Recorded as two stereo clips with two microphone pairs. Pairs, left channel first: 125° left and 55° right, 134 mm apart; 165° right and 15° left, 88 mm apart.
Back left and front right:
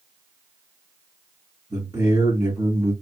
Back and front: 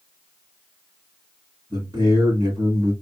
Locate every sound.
1.7 s a man speaking: 5° right, 2 m